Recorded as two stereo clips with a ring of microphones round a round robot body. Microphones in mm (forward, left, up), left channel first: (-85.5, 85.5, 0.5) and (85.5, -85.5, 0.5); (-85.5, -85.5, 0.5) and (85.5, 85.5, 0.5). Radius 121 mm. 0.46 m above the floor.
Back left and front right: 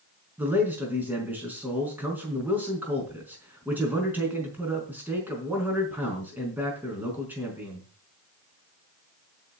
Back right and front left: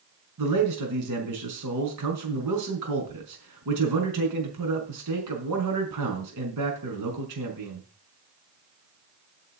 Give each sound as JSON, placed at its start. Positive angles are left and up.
{"t": 0.4, "sound": "a man speaking", "azimuth_deg": 40, "distance_m": 5.0}